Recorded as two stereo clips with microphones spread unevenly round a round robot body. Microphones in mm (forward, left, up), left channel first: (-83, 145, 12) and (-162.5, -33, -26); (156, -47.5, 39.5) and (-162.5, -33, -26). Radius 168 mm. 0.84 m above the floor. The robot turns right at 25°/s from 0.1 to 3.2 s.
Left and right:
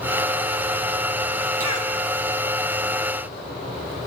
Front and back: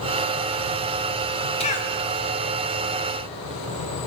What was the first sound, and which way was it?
A cough, 75° right.